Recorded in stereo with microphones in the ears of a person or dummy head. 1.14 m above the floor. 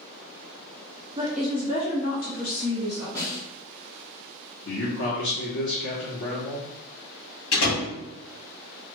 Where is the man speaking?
70° left (ahead or behind), 0.9 m.